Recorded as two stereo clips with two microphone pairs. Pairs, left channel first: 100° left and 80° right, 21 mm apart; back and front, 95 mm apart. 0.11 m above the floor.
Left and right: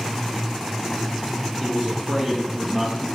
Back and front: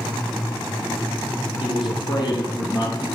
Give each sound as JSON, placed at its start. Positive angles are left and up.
{"t": 1.6, "sound": "a man speaking", "azimuth_deg": -145, "distance_m": 4.5}